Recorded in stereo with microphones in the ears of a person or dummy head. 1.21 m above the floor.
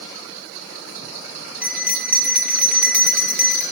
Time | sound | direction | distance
1.6 | a bell | centre (ahead or behind) | 0.6 m